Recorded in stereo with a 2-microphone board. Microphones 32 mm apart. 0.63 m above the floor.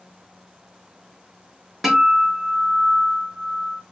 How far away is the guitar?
About 0.8 m.